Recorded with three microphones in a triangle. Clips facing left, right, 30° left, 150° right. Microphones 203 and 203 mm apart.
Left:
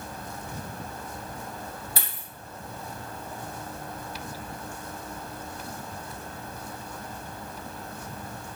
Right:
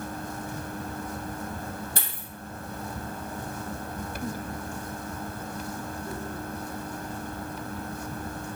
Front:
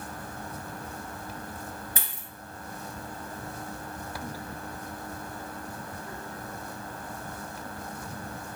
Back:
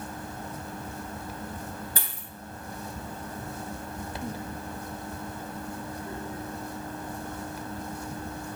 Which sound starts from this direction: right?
A dropped coin, at 2.0 s.